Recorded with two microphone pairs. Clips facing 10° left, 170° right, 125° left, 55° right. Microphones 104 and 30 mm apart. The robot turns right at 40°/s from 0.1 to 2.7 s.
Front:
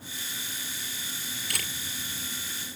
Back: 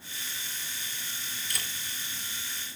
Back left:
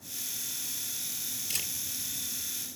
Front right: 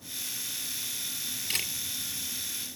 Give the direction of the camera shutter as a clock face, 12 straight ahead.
12 o'clock.